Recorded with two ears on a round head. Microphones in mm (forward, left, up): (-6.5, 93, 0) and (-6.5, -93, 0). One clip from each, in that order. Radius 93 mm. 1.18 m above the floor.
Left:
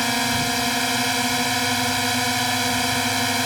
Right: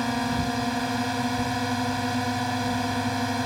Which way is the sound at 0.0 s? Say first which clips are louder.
Left 6 dB; 65° left (ahead or behind).